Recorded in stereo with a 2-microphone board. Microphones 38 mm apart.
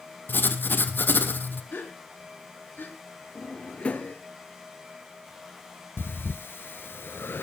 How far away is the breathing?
About 0.7 m.